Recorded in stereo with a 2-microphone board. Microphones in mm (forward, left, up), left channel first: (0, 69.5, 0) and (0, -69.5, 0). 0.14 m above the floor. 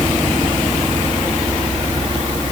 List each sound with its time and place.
Only background noise.